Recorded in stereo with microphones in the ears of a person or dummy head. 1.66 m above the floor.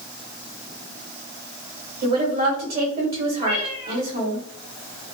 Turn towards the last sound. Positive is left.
turn(degrees=-45)  # may be behind; listen again after turning